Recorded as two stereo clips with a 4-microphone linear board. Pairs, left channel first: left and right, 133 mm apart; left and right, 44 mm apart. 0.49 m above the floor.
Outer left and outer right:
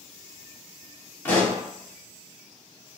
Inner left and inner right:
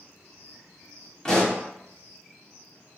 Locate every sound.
1.2 s a pop: 15° left (ahead or behind), 0.8 m